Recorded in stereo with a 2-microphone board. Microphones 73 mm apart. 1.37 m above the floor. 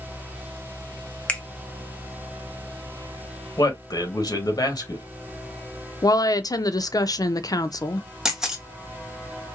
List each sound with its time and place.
1.3 s a finger snap: 20° left (ahead or behind), 0.7 m
3.6 s a man speaking: 60° left (ahead or behind), 1.3 m
6.0 s a woman speaking: 60° left (ahead or behind), 0.5 m
8.2 s a camera shutter: 10° right (ahead or behind), 1.2 m